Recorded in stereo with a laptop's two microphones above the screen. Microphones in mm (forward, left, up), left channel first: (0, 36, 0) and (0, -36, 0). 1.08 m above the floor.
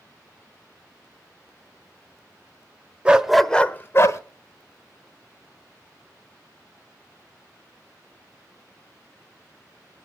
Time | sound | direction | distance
3.0 | a dog barking | 15° right (ahead or behind) | 1.0 m